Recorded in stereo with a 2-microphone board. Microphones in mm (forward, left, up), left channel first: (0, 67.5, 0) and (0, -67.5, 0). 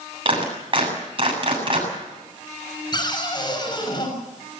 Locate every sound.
0.2 s a clap: 40° right (ahead or behind), 7 m
2.9 s a cupboard door: 35° left (ahead or behind), 6.5 m